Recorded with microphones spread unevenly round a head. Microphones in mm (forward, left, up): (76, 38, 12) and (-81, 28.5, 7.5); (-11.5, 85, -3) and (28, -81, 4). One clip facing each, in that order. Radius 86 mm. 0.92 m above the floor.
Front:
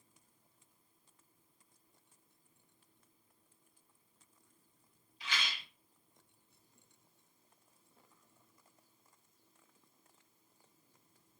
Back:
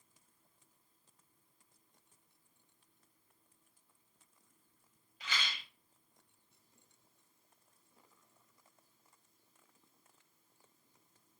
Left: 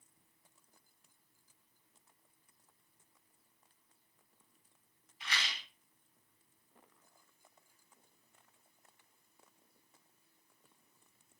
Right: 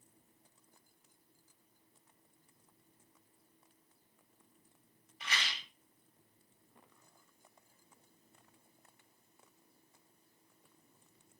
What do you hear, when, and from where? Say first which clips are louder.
5.2 s a rattle: even, right 1 dB; 125° right, 2.5 m